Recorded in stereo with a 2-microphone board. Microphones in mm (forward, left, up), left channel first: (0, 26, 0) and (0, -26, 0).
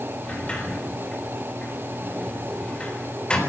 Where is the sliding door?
20° left (ahead or behind), 3.5 m.